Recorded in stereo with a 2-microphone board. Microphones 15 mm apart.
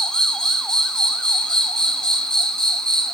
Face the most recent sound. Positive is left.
turn(degrees=75)  # may be behind; listen again after turning